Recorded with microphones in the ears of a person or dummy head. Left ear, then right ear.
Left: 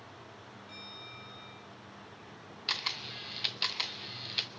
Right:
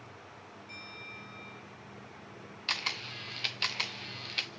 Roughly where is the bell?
Centre.